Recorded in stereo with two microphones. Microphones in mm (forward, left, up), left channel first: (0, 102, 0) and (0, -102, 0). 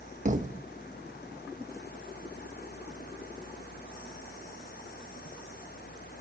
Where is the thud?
40° right (ahead or behind), 0.7 m.